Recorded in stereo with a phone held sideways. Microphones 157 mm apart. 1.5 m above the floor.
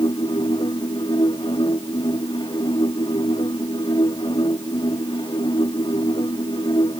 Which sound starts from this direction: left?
A machine running, at 0.0 s.